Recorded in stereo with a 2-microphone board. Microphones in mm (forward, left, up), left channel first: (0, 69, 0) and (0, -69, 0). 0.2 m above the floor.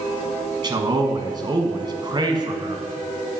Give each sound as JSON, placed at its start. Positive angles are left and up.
{"t": 0.6, "sound": "a man speaking", "side_deg": -30, "distance_m": 1.3}